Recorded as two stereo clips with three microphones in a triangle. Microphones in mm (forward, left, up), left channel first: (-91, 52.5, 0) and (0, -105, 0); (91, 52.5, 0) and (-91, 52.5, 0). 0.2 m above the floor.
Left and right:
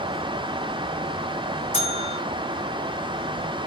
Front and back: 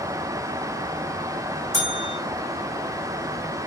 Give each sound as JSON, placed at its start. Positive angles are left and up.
{"t": 1.7, "sound": "a bell", "azimuth_deg": 180, "distance_m": 2.0}